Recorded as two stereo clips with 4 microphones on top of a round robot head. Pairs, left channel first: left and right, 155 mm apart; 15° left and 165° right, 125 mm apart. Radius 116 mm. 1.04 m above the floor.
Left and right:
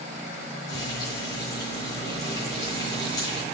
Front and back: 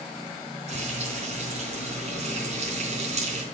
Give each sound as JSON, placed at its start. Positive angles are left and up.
{"t": 0.7, "sound": "frying", "azimuth_deg": 165, "distance_m": 4.0}